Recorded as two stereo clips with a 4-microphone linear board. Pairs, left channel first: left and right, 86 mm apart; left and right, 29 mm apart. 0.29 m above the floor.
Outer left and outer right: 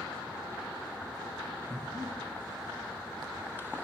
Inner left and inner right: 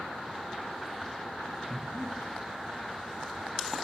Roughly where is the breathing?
Right.